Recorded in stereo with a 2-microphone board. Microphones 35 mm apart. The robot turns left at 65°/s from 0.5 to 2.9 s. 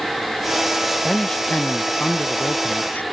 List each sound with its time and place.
0.8 s a man speaking: 170° right; by 3.0 s 55° left